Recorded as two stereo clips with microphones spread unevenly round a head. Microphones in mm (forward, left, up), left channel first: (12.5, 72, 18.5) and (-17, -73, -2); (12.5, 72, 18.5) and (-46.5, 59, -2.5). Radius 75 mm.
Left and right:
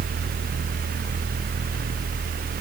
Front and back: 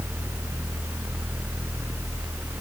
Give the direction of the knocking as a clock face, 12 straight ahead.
No knocking in this recording.